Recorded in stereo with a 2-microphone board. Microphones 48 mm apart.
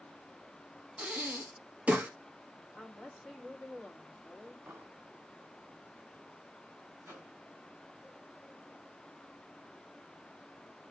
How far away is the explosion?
About 1.8 m.